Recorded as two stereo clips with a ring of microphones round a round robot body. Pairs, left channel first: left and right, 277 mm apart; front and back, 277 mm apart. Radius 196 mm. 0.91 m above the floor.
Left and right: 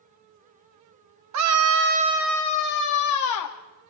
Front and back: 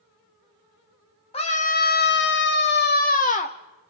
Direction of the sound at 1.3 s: 70° right.